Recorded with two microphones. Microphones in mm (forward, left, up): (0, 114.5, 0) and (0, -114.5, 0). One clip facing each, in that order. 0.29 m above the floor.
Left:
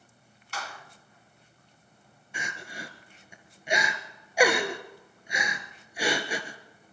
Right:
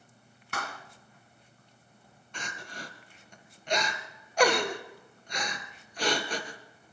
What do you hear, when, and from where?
0.5 s a clap: 60° right (ahead or behind), 1.9 m
2.3 s crying: 10° left (ahead or behind), 1.8 m